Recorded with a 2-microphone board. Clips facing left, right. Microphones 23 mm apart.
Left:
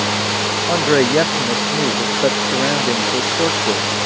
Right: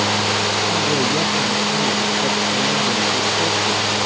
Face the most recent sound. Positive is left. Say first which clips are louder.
# left 4 dB
turn(degrees=65)  # may be behind; listen again after turning